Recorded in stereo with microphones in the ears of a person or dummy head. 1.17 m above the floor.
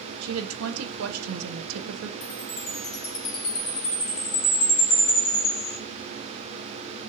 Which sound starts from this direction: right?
A woman speaking, at 0.2 s.